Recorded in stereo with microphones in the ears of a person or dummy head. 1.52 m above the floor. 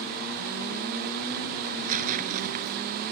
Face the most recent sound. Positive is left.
turn(degrees=-45)  # may be behind; listen again after turning